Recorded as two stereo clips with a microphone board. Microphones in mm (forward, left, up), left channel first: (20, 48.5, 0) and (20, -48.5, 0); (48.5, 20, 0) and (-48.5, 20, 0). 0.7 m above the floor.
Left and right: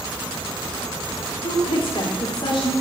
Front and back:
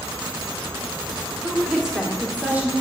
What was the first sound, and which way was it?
A woman speaking, 90° left.